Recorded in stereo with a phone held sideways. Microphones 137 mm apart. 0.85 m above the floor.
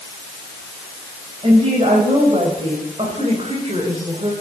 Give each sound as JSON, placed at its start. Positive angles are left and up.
{"t": 1.4, "sound": "a woman speaking", "side_deg": -45, "distance_m": 4.0}